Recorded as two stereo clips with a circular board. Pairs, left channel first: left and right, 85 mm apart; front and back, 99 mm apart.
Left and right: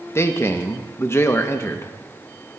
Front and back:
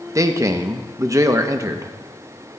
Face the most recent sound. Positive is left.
turn(degrees=135)